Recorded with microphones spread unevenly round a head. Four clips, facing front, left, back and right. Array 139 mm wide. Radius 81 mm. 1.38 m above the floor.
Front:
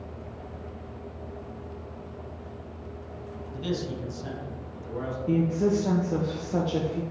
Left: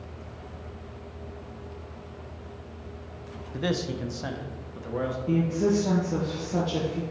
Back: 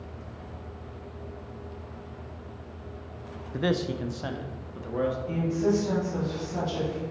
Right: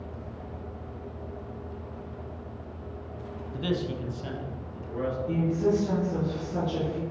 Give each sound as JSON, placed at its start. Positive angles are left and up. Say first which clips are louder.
{"t": 3.5, "sound": "a man speaking", "louder": "left 1 dB, back 4 dB", "azimuth_deg": 160, "distance_m": 0.7}
{"t": 5.3, "sound": "a woman speaking", "louder": "left 2 dB, front 6 dB", "azimuth_deg": 30, "distance_m": 1.3}